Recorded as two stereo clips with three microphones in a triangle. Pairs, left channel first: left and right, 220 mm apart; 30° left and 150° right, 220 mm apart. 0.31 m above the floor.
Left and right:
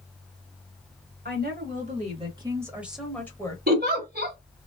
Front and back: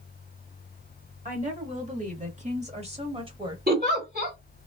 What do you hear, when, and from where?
1.2 s a woman speaking: 105° right, 1.8 m; by 3.6 s 155° left, 1.5 m
3.7 s a giggle: 120° right, 1.4 m